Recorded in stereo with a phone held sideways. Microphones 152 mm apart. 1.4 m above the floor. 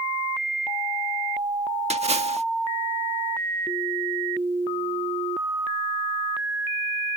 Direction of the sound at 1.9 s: 45° right (ahead or behind).